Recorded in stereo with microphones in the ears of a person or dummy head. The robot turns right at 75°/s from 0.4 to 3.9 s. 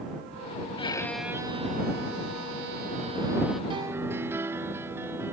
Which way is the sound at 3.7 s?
30° right (ahead or behind).